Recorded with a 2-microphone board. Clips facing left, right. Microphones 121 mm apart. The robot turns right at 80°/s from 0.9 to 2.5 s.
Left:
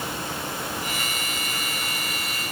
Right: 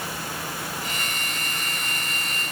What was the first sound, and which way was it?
Only background noise.